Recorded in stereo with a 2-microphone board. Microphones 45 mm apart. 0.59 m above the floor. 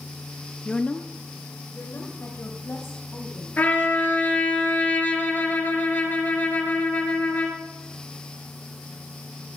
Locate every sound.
0.7 s a woman speaking: 15° left (ahead or behind), 0.7 m; by 3.5 s 70° left (ahead or behind), 4 m
3.6 s a trumpet: 40° left (ahead or behind), 3 m